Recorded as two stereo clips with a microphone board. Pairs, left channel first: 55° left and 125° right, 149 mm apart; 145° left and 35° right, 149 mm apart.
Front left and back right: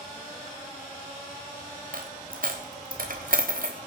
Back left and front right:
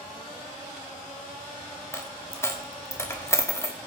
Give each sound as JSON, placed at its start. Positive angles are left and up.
{"t": 1.9, "sound": "a dropped coin", "azimuth_deg": -145, "distance_m": 1.5}